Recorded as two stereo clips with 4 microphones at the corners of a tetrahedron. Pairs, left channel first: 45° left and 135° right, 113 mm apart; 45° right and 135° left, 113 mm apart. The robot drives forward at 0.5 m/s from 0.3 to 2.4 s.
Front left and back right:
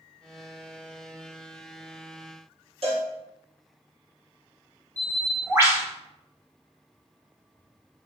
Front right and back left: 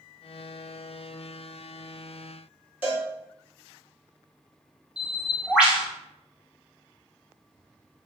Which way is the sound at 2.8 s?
150° right.